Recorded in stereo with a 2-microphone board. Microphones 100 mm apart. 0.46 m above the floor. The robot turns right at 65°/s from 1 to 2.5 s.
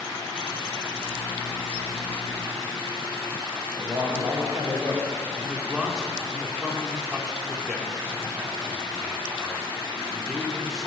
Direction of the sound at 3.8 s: 35° right (ahead or behind).